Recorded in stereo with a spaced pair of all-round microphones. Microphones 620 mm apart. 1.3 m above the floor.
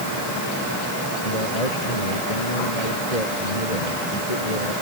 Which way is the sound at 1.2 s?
85° left.